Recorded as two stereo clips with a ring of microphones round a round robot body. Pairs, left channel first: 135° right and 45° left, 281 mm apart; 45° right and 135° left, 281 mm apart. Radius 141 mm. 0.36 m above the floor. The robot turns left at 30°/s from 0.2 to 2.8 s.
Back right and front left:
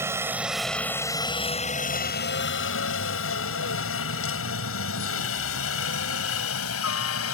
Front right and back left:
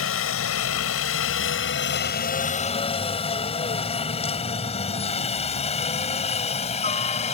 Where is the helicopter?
35° right; by 7.4 s 110° right.